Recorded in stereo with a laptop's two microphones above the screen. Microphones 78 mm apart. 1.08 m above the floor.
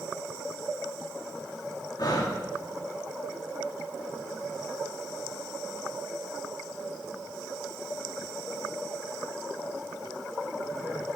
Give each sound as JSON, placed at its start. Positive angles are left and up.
{"t": 2.0, "sound": "breathing", "side_deg": 55, "distance_m": 1.9}